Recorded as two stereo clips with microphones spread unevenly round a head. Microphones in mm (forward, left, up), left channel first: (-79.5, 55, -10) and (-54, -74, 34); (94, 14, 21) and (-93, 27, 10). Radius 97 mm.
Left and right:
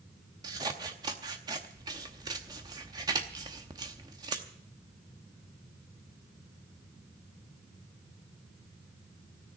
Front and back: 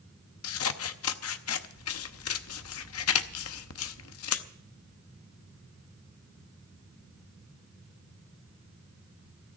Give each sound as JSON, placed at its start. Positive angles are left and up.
{"t": 0.4, "sound": "scissors", "azimuth_deg": -15, "distance_m": 0.7}